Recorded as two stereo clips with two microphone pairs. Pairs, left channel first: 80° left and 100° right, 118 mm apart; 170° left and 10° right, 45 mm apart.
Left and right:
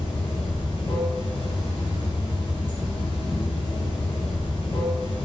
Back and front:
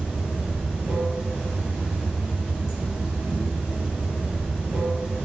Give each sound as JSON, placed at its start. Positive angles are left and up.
{"t": 0.0, "sound": "running water", "azimuth_deg": 85, "distance_m": 1.6}